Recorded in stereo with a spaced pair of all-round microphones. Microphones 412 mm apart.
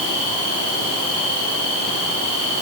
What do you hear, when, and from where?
Only background noise.